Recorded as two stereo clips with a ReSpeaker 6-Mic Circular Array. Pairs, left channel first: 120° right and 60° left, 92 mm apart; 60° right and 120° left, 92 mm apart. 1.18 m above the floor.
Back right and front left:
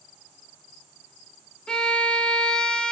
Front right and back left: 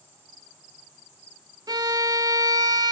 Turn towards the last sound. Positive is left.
turn(degrees=160)